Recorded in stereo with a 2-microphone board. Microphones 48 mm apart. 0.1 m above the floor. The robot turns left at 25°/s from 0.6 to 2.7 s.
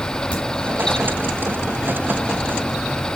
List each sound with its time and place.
0.3 s a crack: 30° right (ahead or behind), 7 m